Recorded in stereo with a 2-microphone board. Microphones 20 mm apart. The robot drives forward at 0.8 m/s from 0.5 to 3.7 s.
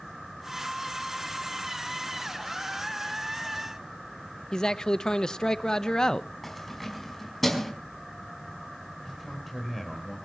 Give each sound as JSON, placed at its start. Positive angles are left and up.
{"t": 4.5, "sound": "a man speaking", "side_deg": 35, "distance_m": 0.8}
{"t": 6.4, "sound": "keys jangling", "side_deg": 5, "distance_m": 4.5}
{"t": 9.1, "sound": "a man speaking", "side_deg": 5, "distance_m": 4.5}